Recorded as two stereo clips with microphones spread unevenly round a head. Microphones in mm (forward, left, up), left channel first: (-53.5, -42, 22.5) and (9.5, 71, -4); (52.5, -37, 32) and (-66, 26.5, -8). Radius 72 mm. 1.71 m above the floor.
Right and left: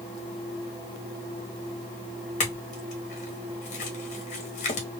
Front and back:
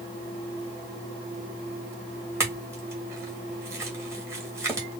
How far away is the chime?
I don't hear a chime.